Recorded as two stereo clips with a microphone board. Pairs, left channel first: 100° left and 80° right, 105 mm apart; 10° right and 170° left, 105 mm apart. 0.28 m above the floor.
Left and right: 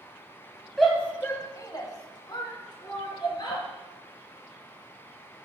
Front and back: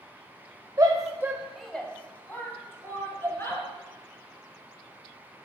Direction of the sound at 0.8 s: 170° right.